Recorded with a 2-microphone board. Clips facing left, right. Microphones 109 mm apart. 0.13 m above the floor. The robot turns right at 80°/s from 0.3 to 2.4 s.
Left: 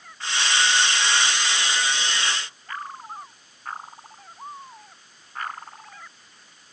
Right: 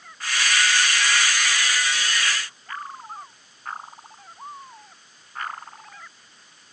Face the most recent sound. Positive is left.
No sound to turn to.